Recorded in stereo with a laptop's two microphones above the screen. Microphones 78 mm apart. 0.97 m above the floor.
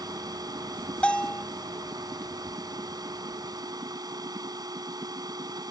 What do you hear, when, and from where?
0.0 s a machine running: 55° right (ahead or behind)
1.0 s a bell: 15° left (ahead or behind)